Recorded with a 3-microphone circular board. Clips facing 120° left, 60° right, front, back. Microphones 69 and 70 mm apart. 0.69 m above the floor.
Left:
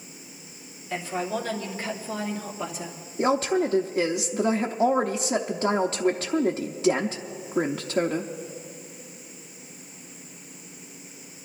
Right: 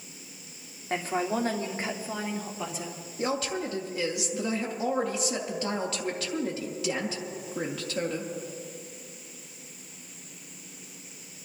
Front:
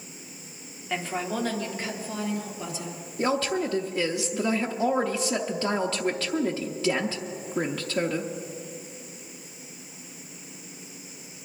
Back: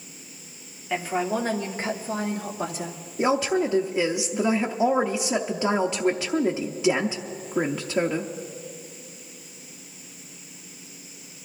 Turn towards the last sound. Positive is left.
turn(degrees=120)